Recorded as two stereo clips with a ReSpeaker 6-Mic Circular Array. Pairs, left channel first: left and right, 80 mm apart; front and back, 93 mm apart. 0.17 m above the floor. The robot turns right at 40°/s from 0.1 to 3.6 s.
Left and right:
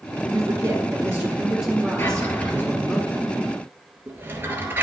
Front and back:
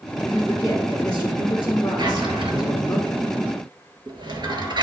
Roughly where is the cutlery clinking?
No cutlery clinking in this recording.